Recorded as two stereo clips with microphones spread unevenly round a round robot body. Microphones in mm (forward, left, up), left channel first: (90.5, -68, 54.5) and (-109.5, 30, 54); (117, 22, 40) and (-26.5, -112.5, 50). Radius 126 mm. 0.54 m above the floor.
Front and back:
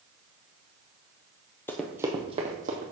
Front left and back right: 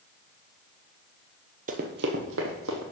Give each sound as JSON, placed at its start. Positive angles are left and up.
{"t": 1.7, "sound": "running footsteps", "azimuth_deg": -105, "distance_m": 0.8}